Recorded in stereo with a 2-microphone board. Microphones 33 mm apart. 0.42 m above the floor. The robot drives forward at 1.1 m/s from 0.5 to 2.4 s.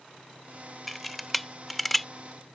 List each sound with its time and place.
0.9 s a camera shutter: 5° left (ahead or behind)